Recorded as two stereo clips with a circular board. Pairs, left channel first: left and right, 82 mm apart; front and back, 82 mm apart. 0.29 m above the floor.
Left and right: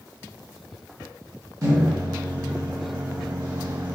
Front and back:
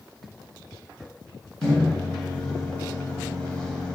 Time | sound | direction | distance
1.6 | a microwave | 75° right | 1.5 m